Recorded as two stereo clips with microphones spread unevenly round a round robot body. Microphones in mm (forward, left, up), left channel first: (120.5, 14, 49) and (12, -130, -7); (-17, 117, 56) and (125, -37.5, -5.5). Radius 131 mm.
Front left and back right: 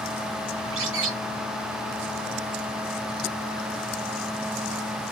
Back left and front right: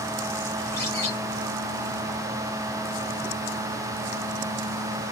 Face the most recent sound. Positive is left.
turn(degrees=-150)